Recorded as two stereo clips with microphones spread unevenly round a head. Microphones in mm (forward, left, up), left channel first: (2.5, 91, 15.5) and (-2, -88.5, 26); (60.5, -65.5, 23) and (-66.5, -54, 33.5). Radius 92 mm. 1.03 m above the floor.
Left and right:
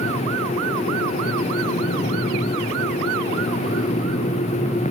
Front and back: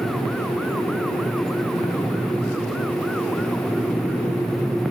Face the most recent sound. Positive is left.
No sound to turn to.